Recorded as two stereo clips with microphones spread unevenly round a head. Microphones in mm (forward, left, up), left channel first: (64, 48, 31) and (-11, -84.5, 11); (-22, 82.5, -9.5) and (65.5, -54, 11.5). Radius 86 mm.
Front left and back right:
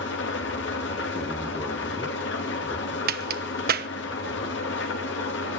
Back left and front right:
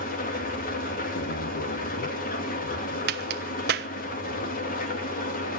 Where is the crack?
95° right, 0.9 m.